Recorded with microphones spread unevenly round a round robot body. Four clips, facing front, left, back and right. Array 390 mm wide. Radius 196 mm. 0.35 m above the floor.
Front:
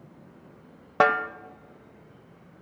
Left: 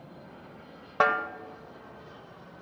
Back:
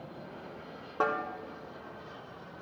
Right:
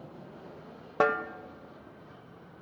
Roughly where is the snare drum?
Ahead.